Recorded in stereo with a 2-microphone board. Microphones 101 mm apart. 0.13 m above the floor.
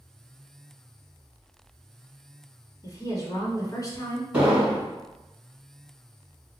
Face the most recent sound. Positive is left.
turn(degrees=-10)  # may be behind; listen again after turning